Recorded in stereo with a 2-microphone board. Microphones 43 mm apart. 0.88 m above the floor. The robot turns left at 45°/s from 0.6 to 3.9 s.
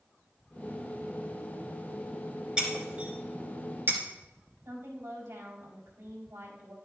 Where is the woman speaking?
80° right, 4 m.